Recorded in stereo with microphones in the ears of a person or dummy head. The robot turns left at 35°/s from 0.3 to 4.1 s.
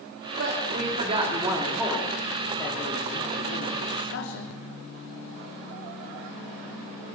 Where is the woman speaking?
120° right, 3 m; by 4.5 s 110° left, 3 m.